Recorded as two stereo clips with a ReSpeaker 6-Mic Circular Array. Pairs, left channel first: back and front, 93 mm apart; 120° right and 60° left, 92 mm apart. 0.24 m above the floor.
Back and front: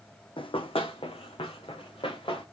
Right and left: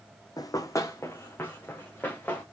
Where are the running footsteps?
165° right, 0.8 m; by 2.4 s 170° left, 2.5 m.